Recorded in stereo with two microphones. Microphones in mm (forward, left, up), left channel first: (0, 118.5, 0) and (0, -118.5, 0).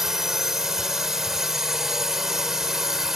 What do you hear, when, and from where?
0.0 s a drone: centre (ahead or behind)